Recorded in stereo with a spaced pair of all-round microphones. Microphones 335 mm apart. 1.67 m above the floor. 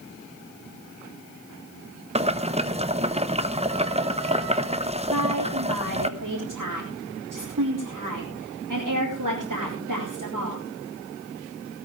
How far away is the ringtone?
I don't hear a ringtone.